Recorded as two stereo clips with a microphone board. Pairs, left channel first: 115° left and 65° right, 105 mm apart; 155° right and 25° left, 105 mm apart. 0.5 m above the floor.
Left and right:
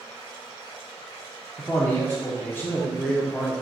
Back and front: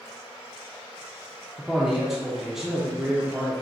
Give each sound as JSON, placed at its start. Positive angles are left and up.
{"t": 1.6, "sound": "a man speaking", "azimuth_deg": 100, "distance_m": 0.6}